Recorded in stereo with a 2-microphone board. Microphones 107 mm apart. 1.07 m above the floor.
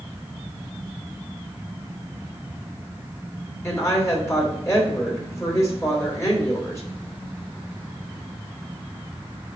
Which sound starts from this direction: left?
A woman speaking, at 3.6 s.